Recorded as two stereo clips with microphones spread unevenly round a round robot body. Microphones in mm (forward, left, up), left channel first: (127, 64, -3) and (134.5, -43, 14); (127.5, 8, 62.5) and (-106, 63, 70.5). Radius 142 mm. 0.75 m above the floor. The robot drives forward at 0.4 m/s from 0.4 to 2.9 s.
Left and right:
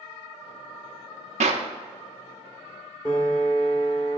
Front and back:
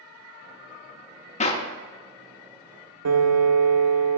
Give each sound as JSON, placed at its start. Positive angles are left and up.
{"t": 1.4, "sound": "a clap", "azimuth_deg": -75, "distance_m": 0.6}
{"t": 3.0, "sound": "a piano", "azimuth_deg": 160, "distance_m": 0.8}